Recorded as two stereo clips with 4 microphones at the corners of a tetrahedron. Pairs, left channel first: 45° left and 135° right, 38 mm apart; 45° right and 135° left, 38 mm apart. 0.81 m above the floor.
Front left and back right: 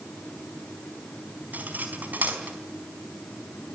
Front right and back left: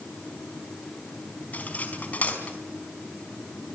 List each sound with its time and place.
1.5 s cutlery clinking: 90° right, 4.5 m